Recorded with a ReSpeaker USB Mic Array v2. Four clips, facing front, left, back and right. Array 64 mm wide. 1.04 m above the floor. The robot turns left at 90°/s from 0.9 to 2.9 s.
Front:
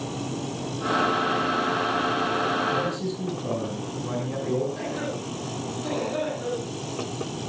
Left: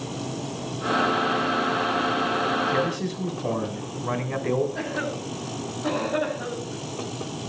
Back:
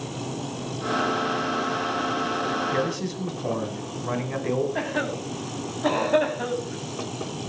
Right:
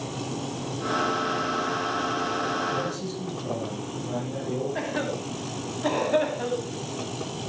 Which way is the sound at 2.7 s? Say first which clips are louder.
Left 4 dB, even; 135° left.